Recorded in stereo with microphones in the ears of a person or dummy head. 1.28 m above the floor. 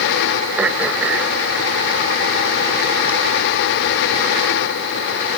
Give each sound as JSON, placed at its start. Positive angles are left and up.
{"t": 0.6, "sound": "throat clearing", "side_deg": -15}